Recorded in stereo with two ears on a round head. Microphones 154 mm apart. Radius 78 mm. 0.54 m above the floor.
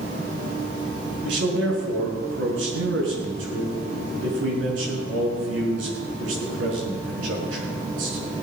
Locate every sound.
1.2 s a man speaking: 85° right, 6 m